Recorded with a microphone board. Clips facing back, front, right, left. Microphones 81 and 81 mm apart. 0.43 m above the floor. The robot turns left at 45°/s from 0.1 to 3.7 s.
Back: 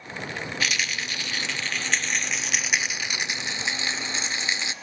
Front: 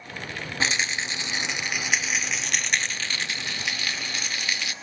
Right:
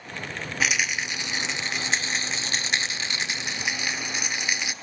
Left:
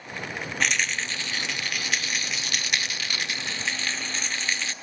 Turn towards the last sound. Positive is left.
turn(degrees=-150)